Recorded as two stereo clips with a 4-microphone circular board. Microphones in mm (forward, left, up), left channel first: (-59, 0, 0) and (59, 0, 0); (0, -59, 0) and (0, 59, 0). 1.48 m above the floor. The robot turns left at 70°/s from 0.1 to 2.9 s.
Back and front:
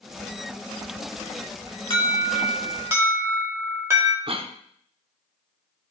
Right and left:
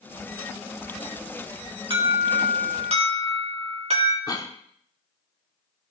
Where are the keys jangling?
I don't hear keys jangling.